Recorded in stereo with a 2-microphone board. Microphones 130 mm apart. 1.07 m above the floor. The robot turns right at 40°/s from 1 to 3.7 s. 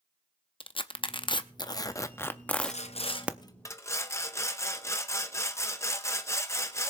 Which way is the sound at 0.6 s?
40° left (ahead or behind).